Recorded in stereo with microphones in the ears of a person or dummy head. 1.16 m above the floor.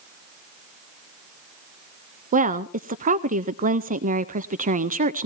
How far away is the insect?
I don't hear an insect.